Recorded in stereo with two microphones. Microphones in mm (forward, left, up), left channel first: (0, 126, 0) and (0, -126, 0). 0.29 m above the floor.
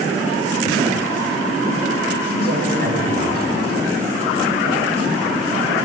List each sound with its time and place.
2.3 s a man speaking: 45° right (ahead or behind), 4 m